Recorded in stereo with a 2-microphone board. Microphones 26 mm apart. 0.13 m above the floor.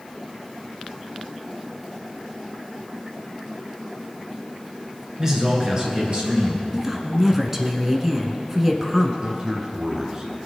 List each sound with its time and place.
5.2 s a man speaking: 25° right (ahead or behind), 2 m; by 6.6 s 50° right (ahead or behind), 2.5 m
6.7 s a woman speaking: 15° right (ahead or behind), 1.1 m
9.2 s a man speaking: 30° right (ahead or behind), 1.4 m